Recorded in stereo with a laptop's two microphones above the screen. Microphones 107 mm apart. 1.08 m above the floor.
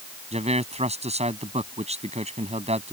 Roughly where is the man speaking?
Right.